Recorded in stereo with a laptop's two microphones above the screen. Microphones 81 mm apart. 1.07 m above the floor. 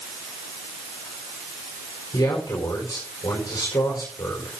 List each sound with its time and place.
2.1 s a man speaking: 55° left (ahead or behind), 4.5 m